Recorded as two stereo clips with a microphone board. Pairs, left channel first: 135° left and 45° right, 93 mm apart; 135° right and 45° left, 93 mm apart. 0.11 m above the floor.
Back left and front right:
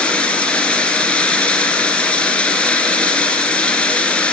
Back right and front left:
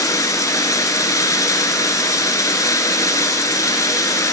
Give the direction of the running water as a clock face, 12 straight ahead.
5 o'clock.